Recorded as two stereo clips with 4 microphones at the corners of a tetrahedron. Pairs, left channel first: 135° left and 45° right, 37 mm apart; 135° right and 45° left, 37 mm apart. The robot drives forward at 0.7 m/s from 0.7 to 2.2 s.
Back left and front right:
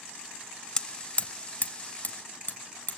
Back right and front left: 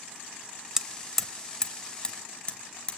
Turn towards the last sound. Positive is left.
turn(degrees=165)